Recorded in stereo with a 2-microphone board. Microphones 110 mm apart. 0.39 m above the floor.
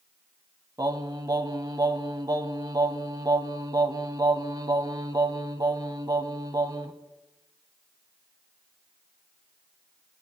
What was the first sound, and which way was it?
Singing, 35° right (ahead or behind).